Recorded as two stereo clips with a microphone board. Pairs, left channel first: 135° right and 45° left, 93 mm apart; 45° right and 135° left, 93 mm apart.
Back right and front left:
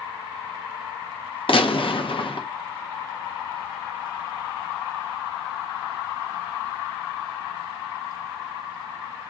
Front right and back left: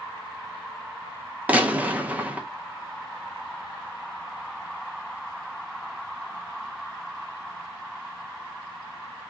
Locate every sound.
1.5 s a gunshot: 150° right, 0.6 m